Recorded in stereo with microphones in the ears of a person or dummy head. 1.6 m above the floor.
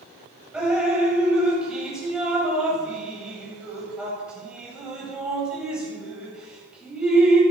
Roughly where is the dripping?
Centre.